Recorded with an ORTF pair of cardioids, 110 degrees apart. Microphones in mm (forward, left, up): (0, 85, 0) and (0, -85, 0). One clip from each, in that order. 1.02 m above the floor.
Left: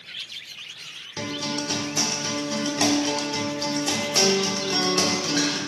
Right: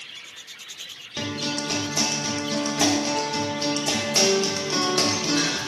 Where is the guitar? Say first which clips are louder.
Right 1 dB; 5° right, 0.5 m.